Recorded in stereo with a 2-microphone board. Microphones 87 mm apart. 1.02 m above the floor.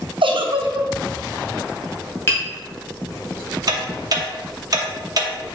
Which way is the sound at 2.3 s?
30° left (ahead or behind).